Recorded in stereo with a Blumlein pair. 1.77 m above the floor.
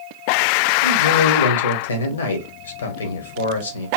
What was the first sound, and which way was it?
A man speaking, 65° left.